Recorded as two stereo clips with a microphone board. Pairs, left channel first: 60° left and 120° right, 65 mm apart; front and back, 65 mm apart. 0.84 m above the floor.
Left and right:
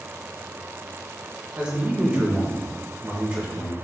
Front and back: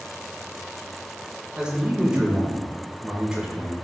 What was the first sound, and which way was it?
A man speaking, 135° right.